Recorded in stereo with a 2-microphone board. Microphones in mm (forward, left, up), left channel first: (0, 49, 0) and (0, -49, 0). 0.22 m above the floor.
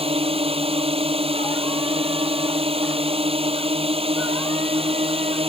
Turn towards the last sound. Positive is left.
turn(degrees=-75)  # may be behind; listen again after turning